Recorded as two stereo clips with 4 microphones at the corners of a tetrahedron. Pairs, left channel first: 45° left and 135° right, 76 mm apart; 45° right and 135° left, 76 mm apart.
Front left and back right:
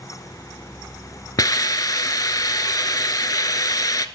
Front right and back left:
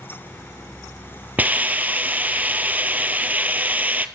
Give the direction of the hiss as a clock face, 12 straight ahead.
10 o'clock.